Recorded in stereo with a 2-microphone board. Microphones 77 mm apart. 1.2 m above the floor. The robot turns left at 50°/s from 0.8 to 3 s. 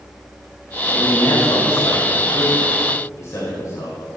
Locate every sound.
0.9 s a man speaking: 150° left, 6 m; by 4.0 s 40° left, 6 m